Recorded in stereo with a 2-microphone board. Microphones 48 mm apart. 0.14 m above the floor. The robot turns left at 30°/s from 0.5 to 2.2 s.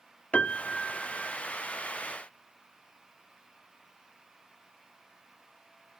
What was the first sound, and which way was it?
A piano, 25° left (ahead or behind).